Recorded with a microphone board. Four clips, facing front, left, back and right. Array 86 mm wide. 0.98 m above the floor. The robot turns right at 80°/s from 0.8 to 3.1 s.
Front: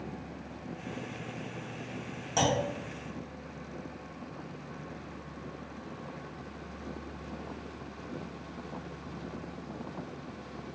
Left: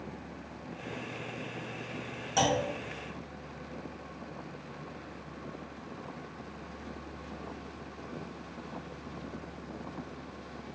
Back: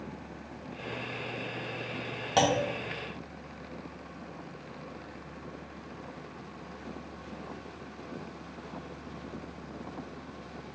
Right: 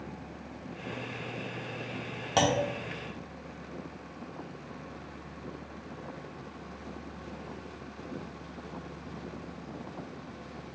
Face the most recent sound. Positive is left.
turn(degrees=-75)